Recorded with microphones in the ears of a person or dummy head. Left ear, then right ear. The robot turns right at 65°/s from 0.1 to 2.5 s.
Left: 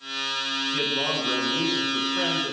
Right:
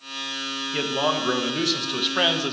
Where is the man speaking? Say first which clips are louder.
Right 4 dB; 165° right, 1.3 m; by 2.5 s 50° right, 1.3 m.